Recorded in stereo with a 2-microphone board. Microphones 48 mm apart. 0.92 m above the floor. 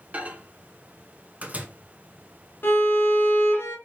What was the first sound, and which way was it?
A microwave, 30° right (ahead or behind).